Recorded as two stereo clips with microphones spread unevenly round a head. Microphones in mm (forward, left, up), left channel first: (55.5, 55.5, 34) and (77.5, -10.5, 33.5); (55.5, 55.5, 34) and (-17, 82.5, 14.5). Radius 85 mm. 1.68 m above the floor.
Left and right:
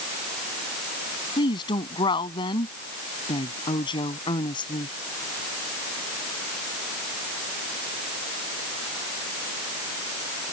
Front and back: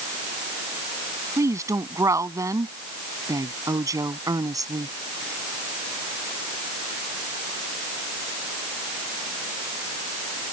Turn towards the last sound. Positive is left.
turn(degrees=120)